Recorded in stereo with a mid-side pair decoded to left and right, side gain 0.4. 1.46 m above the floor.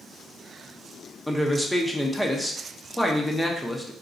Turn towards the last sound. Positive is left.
turn(degrees=10)